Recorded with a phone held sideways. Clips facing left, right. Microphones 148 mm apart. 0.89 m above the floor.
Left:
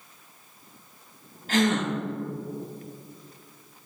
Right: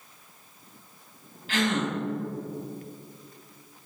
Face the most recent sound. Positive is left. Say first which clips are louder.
# left 3 dB
turn(degrees=45)  # may be behind; listen again after turning